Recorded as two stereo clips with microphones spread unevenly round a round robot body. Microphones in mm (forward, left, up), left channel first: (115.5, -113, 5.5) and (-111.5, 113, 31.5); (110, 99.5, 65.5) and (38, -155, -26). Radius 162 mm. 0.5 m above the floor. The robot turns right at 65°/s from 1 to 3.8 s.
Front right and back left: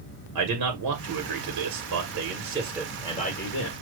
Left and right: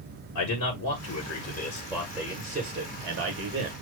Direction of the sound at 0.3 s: 110° left.